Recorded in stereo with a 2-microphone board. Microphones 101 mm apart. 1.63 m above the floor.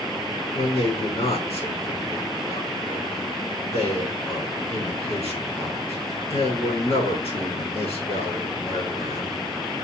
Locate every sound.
0.5 s a man speaking: 85° left, 6 m